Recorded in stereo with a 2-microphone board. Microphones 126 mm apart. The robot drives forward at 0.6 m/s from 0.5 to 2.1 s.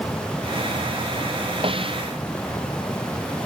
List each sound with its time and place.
1.6 s a snare drum: 45° right (ahead or behind)